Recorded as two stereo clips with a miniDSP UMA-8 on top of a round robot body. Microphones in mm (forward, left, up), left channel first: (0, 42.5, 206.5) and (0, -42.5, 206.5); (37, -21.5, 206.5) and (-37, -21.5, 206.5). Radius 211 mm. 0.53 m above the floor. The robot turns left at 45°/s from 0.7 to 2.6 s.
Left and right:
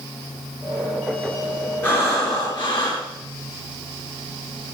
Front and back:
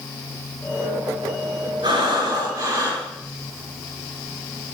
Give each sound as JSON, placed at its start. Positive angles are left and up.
{"t": 1.8, "sound": "breathing", "azimuth_deg": 160, "distance_m": 5.5}